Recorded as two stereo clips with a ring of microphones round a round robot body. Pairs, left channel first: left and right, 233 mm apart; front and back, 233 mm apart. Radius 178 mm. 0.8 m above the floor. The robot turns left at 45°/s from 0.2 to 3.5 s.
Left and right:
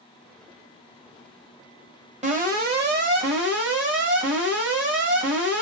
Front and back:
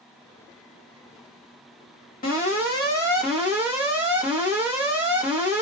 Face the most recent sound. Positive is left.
turn(degrees=-95)